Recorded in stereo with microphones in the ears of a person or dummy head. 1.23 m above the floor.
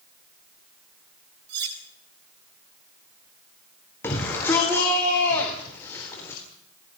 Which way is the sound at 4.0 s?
15° left (ahead or behind).